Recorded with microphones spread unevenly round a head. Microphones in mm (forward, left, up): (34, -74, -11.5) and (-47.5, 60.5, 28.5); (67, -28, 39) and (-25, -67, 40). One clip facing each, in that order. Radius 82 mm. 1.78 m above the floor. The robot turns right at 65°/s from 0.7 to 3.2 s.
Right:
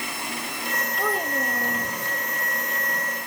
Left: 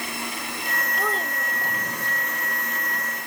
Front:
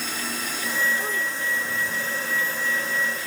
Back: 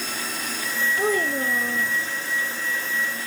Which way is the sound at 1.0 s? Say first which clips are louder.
Right 4 dB, back 6 dB; 155° right.